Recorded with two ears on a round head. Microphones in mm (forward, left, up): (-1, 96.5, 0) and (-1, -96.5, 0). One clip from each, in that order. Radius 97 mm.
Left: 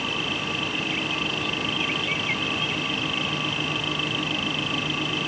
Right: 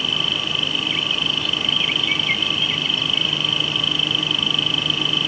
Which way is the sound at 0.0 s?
25° right (ahead or behind).